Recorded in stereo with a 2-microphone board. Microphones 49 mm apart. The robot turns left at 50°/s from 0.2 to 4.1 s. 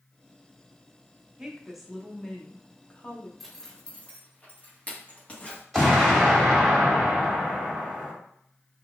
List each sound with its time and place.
1.4 s a woman speaking: 155° right, 0.7 m; by 3.3 s 105° left, 0.7 m
3.4 s a zipper: centre (ahead or behind), 1.1 m; by 5.6 s 25° left (ahead or behind), 1.1 m
5.7 s an explosion: centre (ahead or behind), 1.5 m